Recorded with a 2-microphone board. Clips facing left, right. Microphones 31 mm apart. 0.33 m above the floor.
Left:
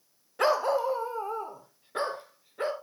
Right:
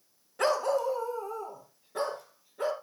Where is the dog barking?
15° left (ahead or behind), 0.5 m; by 2.7 s 40° left (ahead or behind), 1.9 m.